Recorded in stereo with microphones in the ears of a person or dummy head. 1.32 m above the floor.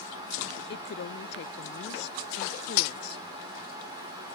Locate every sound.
0.7 s a woman speaking: 70° left (ahead or behind)
2.8 s cutlery clinking: 50° left (ahead or behind)